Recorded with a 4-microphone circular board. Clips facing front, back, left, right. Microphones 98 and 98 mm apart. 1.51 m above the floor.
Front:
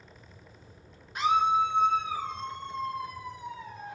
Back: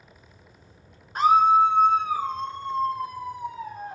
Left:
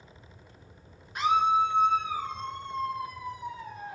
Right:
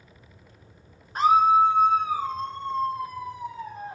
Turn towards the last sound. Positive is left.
turn(degrees=-140)